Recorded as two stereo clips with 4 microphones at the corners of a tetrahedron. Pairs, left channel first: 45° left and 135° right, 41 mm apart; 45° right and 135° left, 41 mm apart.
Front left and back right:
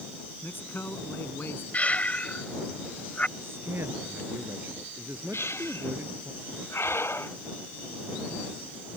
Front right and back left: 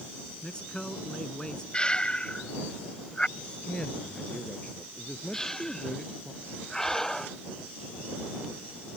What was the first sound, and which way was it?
A man speaking, 25° left.